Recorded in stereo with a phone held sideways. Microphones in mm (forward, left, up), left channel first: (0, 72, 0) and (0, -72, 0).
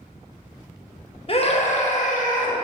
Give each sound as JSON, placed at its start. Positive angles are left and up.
{"t": 1.3, "sound": "a scream", "side_deg": 40, "distance_m": 1.2}